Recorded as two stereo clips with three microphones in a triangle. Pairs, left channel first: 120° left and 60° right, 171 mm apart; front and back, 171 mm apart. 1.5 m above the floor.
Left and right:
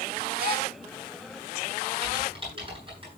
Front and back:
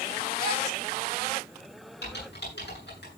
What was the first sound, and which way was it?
A gasp, 35° right.